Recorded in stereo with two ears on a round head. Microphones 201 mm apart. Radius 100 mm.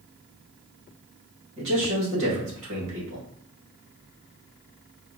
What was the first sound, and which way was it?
A man speaking, 60° right (ahead or behind).